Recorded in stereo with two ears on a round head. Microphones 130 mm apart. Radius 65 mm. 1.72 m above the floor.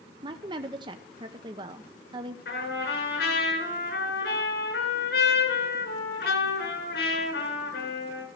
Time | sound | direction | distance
0.2 | a woman speaking | 30° right (ahead or behind) | 0.6 m
2.5 | a trumpet | 75° left (ahead or behind) | 7.5 m